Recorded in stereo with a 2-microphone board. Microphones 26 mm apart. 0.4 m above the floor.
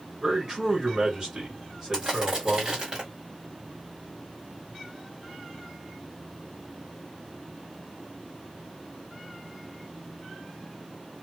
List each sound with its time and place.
0.2 s a man speaking: 35° right (ahead or behind), 1.8 m
1.9 s crushing: 30° right (ahead or behind), 1.7 m